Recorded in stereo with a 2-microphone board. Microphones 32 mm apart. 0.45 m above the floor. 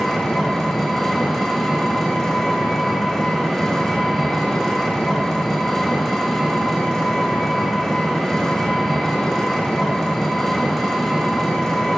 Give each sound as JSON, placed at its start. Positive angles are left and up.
{"t": 0.0, "sound": "an engine running", "side_deg": 10, "distance_m": 1.7}